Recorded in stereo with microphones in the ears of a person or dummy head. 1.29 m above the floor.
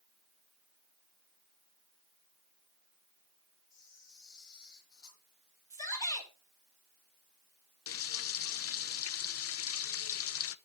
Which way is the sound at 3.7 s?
20° left (ahead or behind).